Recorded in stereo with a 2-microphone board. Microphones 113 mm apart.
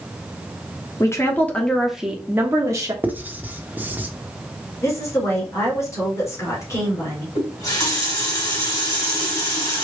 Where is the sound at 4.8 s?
25° left (ahead or behind), 2 m.